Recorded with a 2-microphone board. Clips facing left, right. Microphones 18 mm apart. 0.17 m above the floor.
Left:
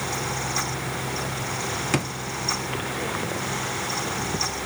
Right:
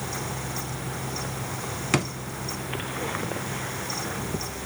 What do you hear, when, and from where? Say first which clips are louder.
1.9 s a drawer: right 2 dB; 5° right (ahead or behind), 0.5 m